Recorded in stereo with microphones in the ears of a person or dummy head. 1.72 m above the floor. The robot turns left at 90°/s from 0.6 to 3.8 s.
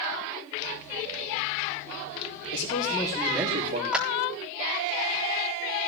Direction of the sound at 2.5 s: 50° left.